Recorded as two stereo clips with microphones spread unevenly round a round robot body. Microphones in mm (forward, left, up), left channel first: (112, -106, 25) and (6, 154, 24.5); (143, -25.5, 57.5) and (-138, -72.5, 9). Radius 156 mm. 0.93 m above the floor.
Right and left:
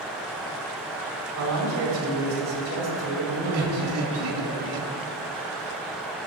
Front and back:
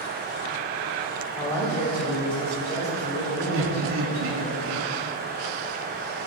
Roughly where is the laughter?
Behind left.